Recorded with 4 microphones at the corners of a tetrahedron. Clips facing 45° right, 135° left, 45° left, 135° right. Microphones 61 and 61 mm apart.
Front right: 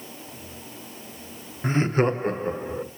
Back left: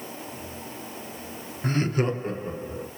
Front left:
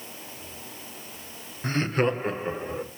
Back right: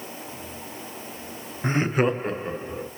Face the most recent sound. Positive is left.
turn(degrees=-30)